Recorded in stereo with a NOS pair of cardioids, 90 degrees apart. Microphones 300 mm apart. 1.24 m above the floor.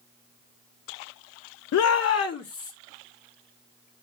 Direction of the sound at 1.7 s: 55° left.